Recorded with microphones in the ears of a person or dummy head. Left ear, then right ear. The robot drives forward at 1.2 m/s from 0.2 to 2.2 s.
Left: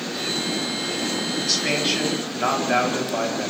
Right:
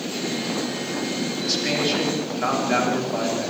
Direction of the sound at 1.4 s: 10° left (ahead or behind).